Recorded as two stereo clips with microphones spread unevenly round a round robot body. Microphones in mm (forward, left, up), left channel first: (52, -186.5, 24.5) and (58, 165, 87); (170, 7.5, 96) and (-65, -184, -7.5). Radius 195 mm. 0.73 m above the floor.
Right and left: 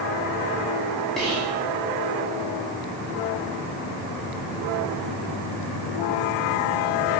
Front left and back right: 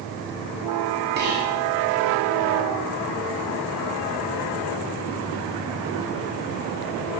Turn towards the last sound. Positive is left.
turn(degrees=-175)